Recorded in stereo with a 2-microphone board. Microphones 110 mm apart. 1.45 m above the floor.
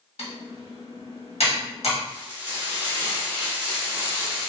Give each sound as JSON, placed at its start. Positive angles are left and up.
{"t": 0.2, "sound": "typing on a keyboard", "side_deg": 75, "distance_m": 1.1}
{"t": 2.1, "sound": "frying", "side_deg": -15, "distance_m": 0.9}